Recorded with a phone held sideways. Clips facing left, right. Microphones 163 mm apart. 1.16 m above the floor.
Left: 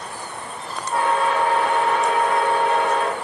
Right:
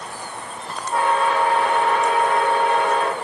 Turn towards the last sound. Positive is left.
turn(degrees=-80)